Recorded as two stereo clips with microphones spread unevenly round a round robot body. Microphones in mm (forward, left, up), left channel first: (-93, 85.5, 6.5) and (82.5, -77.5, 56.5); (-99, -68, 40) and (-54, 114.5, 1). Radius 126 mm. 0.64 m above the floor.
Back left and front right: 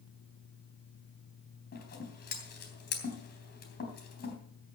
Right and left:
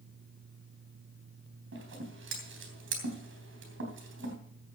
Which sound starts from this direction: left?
Scissors, at 1.7 s.